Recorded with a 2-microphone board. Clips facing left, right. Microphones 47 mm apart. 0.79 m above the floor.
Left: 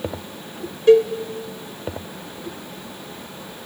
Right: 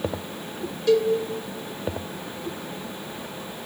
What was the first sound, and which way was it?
A cowbell, 35° left (ahead or behind).